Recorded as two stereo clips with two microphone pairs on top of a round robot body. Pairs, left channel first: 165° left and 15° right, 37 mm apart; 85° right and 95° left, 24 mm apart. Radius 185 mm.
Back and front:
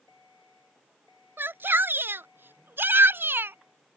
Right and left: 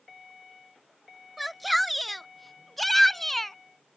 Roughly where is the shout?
Ahead.